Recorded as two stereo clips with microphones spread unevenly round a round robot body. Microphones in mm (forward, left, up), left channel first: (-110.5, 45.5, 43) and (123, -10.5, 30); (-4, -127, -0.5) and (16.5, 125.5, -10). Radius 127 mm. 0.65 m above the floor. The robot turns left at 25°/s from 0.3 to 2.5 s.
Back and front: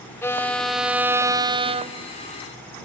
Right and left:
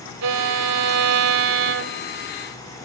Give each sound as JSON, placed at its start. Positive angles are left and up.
{"t": 0.2, "sound": "a violin", "azimuth_deg": 85}